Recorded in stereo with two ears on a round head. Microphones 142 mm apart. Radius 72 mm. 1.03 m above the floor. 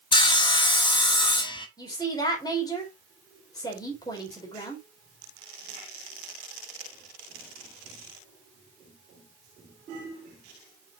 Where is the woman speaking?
25° left (ahead or behind), 3.5 m.